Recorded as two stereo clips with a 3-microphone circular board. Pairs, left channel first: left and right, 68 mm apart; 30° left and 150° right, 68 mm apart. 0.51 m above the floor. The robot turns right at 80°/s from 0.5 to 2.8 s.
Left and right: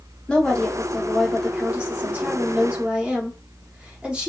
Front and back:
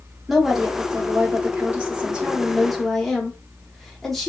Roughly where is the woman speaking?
Behind left.